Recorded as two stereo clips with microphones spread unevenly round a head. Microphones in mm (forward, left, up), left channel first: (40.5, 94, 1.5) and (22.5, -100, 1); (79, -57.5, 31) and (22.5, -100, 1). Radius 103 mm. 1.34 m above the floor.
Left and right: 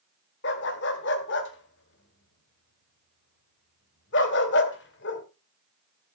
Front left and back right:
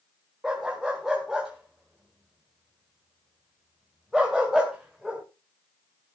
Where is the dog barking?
120° left, 1.9 m.